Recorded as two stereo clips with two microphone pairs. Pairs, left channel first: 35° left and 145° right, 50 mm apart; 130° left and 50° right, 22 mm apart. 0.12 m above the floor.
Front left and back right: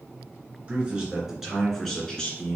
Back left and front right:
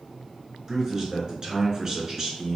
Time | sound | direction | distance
0.7 | a man speaking | 100° right | 2.0 m